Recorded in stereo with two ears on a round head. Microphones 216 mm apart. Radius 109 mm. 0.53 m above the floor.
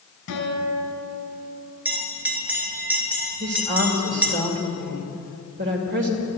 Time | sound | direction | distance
0.3 | a guitar | 55° left (ahead or behind) | 4.5 m
1.9 | a bell | 5° right (ahead or behind) | 1.9 m
3.4 | a woman speaking | 45° right (ahead or behind) | 2 m